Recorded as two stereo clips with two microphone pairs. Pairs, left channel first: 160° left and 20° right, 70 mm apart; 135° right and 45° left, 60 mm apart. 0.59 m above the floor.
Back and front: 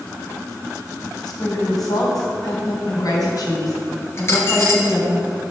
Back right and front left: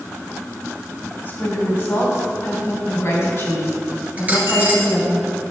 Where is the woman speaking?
175° left, 3.5 m; by 5.2 s 165° right, 5 m.